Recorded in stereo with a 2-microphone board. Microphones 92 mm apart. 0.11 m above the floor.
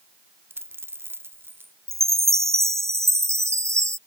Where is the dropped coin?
25° right (ahead or behind).